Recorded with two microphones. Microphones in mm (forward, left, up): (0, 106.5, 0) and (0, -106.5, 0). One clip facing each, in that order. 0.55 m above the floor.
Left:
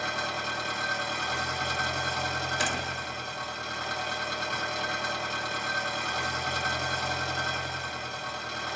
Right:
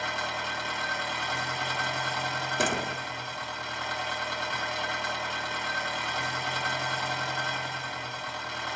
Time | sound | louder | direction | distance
0.0 | an engine running | left 1 dB | 45° left (ahead or behind) | 1.7 m
2.6 | a door slam | right 4 dB | 60° right (ahead or behind) | 0.8 m